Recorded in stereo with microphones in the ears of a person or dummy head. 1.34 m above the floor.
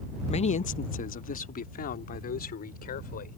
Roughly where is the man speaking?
Left.